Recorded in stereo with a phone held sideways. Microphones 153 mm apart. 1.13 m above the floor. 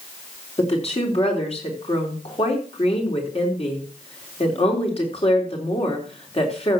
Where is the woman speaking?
45° left (ahead or behind), 4 m.